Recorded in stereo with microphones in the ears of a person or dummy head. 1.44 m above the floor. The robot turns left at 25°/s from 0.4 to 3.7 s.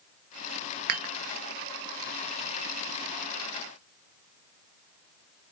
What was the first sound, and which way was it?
Dishes clattering, 55° right (ahead or behind).